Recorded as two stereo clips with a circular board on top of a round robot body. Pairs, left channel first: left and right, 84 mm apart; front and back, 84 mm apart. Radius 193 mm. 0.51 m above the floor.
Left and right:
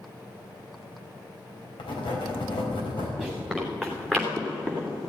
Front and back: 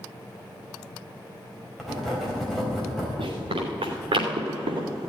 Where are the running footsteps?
Straight behind, 4 m; by 4.9 s 165° left, 3 m.